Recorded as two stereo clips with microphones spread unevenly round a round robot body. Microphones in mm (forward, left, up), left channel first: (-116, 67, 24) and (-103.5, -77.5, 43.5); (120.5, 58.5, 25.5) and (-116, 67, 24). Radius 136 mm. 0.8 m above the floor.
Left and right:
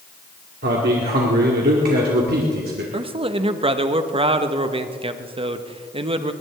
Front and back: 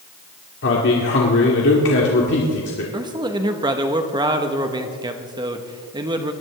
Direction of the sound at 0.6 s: 50° right.